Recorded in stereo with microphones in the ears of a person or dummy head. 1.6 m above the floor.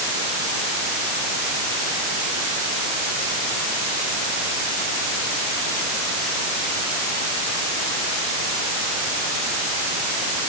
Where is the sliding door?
I don't hear a sliding door.